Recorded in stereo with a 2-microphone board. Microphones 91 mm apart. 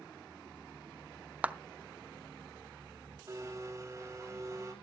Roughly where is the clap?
Centre.